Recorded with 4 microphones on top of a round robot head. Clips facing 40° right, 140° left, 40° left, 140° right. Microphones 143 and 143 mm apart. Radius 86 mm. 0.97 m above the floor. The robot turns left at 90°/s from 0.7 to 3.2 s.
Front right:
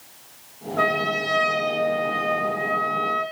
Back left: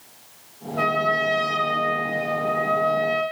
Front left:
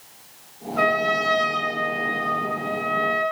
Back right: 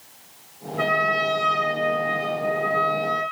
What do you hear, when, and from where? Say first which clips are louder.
0.8 s a trumpet: back left 1 dB, front left 2 dB; 60° left, 6.5 m; by 3.2 s 160° right, 6.5 m